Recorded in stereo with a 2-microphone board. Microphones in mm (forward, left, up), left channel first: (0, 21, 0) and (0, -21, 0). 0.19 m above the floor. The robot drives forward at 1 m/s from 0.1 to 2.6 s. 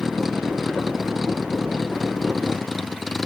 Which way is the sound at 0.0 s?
5° right (ahead or behind).